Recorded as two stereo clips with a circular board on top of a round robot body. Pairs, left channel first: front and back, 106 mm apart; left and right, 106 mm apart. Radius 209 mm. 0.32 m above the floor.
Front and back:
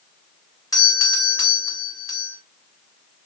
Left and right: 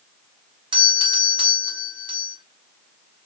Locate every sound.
0.7 s a doorbell: 55° right, 3 m